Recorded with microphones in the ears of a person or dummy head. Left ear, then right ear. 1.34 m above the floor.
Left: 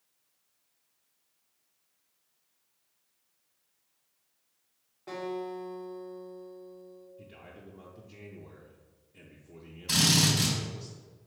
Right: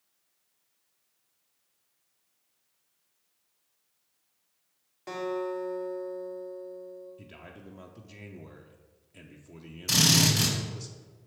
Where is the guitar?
70° right (ahead or behind), 2 m.